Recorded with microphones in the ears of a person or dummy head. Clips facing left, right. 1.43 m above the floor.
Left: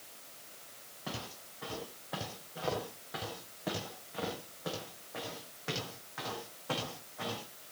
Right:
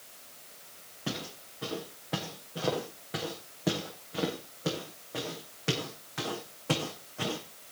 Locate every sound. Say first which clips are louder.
1.1 s footsteps: right 6 dB; 40° right (ahead or behind), 8 m